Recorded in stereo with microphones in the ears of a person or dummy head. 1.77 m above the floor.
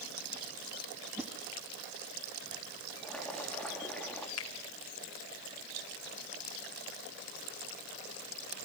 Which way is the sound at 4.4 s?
70° left (ahead or behind).